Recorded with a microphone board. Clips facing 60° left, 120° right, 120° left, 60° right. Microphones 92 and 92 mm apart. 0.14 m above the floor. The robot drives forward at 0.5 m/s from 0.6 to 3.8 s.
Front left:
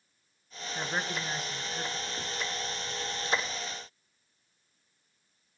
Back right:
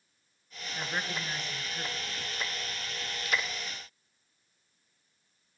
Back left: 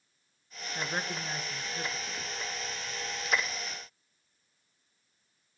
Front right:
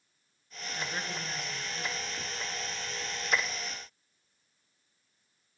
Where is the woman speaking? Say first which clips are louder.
Front left 2 dB, back left 2 dB; 115° left, 1.9 m; by 2.3 s 140° left, 2 m.